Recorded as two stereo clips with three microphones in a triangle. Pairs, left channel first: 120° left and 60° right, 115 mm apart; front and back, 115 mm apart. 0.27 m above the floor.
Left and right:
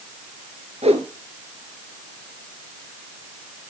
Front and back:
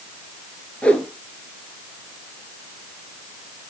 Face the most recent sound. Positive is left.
turn(degrees=-80)